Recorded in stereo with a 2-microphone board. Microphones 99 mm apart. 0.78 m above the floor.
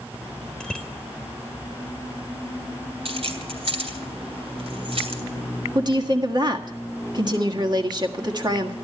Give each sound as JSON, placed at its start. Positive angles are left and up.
{"t": 0.6, "sound": "a bicycle bell", "side_deg": 10, "distance_m": 2.0}
{"t": 3.0, "sound": "keys jangling", "side_deg": -80, "distance_m": 3.0}
{"t": 5.8, "sound": "a woman speaking", "side_deg": -45, "distance_m": 1.5}